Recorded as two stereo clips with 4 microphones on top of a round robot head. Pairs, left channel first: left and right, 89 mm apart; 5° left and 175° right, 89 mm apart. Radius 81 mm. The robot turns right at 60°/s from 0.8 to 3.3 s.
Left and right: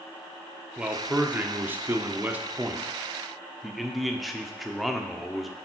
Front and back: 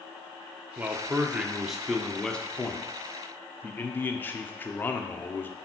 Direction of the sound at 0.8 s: 150° right.